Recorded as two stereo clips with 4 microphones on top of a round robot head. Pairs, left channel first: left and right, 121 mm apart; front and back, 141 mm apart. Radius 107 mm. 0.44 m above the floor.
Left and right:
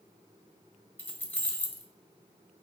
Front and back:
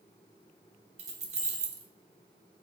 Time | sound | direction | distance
1.0 | keys jangling | 165° left | 0.7 m